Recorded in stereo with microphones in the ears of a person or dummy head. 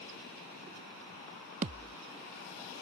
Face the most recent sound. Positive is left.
turn(degrees=-40)  # may be behind; listen again after turning